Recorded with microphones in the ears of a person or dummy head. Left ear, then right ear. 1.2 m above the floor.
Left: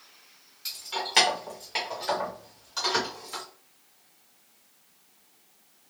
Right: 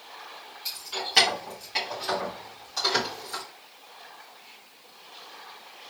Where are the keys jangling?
20° left (ahead or behind), 1.0 m; by 3.4 s 5° left (ahead or behind), 2.5 m.